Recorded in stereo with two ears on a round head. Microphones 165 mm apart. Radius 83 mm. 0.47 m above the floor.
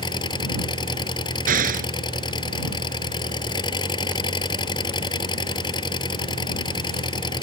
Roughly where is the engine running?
Left.